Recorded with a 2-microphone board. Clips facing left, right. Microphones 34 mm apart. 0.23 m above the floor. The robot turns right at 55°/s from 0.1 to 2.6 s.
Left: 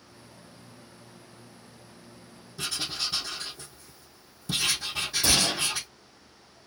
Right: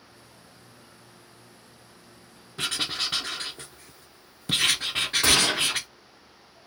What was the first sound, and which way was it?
Writing, 55° right (ahead or behind).